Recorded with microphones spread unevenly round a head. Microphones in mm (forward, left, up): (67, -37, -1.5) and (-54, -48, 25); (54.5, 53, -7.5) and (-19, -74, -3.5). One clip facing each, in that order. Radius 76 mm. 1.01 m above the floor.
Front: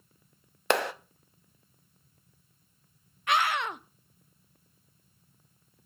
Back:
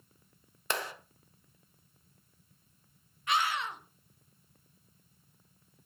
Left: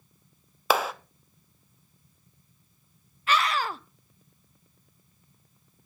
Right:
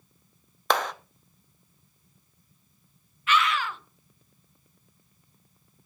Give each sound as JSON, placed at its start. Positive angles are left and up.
{"t": 0.7, "sound": "a clap", "azimuth_deg": -25, "distance_m": 0.9}
{"t": 3.3, "sound": "a scream", "azimuth_deg": 10, "distance_m": 0.7}